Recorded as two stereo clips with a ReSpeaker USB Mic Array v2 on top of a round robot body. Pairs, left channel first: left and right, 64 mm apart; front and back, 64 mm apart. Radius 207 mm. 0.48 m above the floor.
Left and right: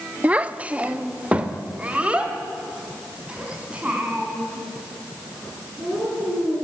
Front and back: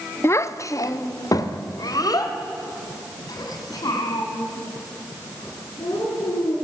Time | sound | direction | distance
0.2 | a child speaking | 30° right | 1.0 m